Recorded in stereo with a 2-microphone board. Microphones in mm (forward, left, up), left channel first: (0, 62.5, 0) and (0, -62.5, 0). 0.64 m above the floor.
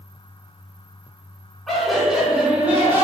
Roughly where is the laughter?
Centre.